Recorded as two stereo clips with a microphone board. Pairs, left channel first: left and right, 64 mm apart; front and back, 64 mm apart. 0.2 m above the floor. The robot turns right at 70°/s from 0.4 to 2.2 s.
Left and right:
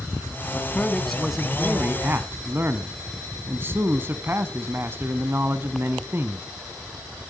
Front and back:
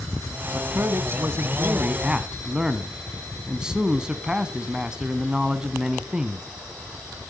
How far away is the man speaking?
About 1.4 m.